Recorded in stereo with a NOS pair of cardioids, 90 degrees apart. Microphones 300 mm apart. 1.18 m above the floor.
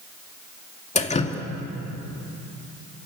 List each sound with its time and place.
0.9 s dripping: 20° left, 2.5 m